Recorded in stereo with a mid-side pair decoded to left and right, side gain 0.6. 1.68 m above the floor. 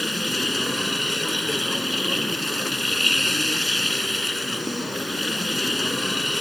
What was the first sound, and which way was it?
A machine running, straight ahead.